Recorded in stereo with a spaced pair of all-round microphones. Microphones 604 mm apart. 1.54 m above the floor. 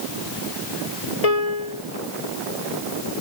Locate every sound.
1.2 s a piano: 70° left (ahead or behind)